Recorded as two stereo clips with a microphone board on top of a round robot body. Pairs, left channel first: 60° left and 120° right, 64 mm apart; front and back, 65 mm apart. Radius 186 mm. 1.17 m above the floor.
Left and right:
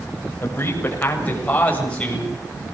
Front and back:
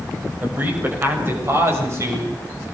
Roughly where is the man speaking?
Behind left.